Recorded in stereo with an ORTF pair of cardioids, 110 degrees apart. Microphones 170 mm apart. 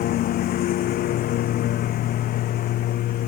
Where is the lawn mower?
65° left.